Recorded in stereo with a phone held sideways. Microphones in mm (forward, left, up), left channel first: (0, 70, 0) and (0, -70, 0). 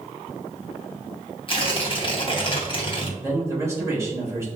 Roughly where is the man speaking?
Right.